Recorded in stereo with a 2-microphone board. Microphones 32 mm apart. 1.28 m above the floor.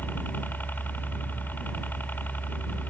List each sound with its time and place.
0.0 s a helicopter: 75° left (ahead or behind)